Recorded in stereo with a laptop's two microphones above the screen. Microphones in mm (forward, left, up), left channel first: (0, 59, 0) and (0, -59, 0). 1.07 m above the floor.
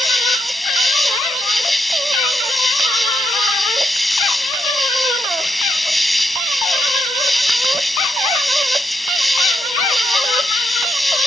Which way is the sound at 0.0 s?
Centre (ahead or behind).